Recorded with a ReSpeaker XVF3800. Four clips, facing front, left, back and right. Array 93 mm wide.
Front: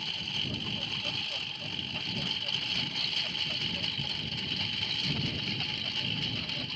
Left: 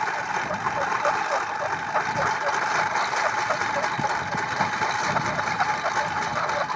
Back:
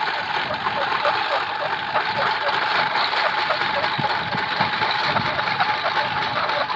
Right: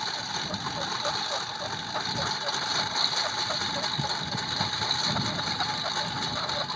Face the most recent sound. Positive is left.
turn(degrees=155)